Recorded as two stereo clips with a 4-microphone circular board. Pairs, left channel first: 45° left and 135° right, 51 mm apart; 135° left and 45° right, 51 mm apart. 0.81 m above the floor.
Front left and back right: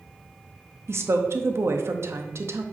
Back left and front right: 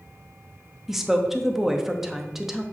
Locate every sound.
0.9 s a woman speaking: 125° right, 0.8 m